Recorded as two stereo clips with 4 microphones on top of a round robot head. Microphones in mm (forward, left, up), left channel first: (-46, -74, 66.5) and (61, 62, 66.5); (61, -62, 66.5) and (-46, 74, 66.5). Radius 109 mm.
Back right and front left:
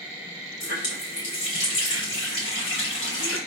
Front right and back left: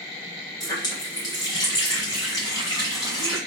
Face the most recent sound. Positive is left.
turn(degrees=-120)